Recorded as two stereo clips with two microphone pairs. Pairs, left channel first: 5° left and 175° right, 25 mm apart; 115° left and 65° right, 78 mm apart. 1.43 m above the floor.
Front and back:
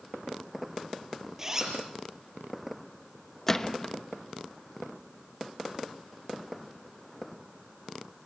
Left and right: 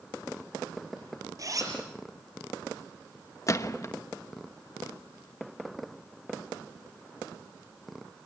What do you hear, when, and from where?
1.4 s a zipper: 105° right, 5 m
3.5 s a gunshot: 75° left, 1.1 m